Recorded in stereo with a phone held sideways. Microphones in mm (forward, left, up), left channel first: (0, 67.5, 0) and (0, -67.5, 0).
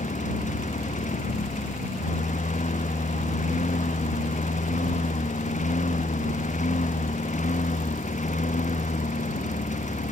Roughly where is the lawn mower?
Left.